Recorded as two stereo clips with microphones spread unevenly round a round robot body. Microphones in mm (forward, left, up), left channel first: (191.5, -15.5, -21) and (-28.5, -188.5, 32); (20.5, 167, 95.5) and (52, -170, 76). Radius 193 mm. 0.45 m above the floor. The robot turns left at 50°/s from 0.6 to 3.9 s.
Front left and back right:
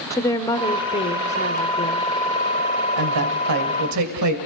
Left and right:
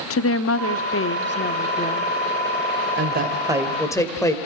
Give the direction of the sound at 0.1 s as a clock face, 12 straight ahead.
9 o'clock.